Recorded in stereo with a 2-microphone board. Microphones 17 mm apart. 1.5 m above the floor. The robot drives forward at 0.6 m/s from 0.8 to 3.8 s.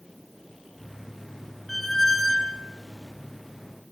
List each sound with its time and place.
1.7 s a squeak: centre (ahead or behind), 1.4 m